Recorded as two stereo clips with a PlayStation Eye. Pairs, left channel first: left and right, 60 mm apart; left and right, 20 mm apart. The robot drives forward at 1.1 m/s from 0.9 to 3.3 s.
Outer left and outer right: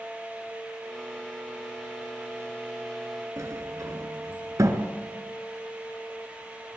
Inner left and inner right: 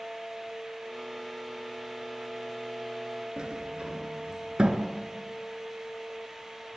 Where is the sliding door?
60° right (ahead or behind), 2.5 m.